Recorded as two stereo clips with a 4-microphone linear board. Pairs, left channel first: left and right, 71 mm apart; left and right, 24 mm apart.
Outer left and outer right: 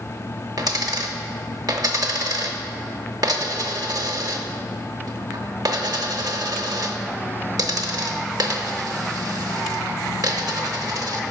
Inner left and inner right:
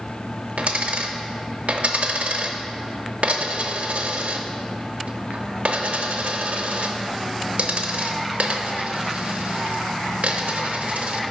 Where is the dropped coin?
65° right (ahead or behind), 0.6 m.